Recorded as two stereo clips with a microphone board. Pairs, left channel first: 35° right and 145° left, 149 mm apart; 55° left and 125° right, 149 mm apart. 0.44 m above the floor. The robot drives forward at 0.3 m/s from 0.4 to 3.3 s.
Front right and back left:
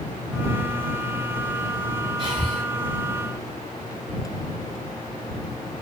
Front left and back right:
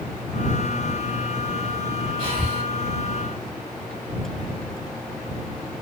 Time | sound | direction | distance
2.2 | breathing | 170° right | 2.5 m